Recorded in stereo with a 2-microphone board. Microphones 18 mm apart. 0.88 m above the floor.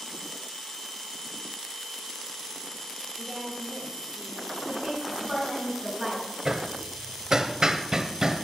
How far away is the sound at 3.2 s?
About 3 m.